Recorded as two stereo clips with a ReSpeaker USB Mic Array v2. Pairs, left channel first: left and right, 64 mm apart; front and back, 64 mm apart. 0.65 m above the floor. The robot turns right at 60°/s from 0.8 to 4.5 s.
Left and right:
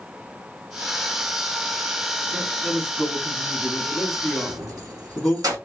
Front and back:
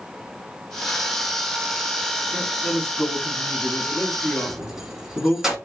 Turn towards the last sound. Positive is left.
turn(degrees=-100)